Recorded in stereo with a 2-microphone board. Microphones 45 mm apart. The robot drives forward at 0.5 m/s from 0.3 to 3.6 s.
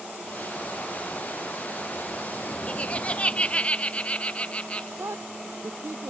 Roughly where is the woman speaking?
Right.